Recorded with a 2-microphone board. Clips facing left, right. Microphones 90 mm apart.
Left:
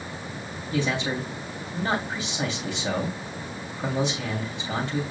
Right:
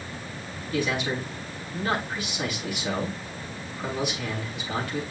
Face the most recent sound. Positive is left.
turn(degrees=25)  # may be behind; listen again after turning